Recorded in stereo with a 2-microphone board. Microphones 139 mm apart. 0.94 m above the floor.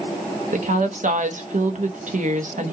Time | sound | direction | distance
0.5 | a woman speaking | 65° right (ahead or behind) | 1.1 m